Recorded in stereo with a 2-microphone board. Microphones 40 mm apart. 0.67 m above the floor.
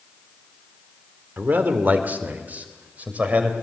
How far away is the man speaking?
About 2 m.